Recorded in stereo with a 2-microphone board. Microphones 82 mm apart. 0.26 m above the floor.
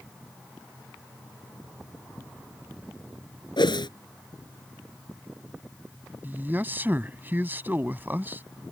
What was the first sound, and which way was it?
A whoosh, 65° left (ahead or behind).